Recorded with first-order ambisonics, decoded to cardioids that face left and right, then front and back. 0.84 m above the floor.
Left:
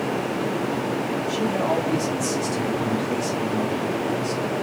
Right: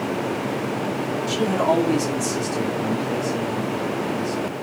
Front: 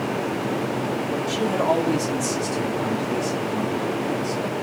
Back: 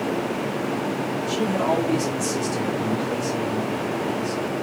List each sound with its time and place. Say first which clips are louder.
1.3 s a man speaking: right 4 dB, front 1 dB; 95° right, 1.3 m; by 4.5 s 95° left, 1.9 m